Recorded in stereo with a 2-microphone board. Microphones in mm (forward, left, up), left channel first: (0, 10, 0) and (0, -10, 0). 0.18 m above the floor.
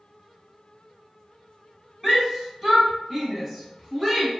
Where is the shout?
10° right (ahead or behind), 1.3 m.